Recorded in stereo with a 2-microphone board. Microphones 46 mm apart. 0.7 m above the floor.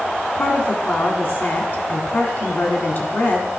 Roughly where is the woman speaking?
Left.